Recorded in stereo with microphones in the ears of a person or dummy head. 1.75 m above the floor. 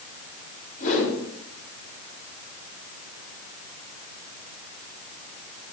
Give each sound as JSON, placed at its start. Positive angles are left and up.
{"t": 0.8, "sound": "a whoosh", "side_deg": 35, "distance_m": 7.5}